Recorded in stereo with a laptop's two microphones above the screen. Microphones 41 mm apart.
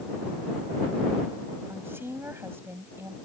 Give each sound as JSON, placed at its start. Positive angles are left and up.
{"t": 1.7, "sound": "a woman speaking", "side_deg": -65}